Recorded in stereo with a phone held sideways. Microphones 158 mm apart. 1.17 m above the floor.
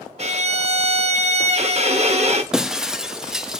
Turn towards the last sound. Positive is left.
turn(degrees=-5)  # may be behind; listen again after turning